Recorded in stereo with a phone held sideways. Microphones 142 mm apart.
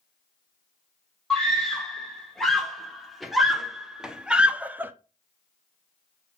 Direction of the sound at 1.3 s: 5° left (ahead or behind).